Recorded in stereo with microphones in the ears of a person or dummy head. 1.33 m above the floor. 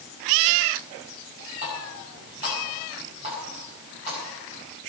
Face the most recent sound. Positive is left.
turn(degrees=-35)  # may be behind; listen again after turning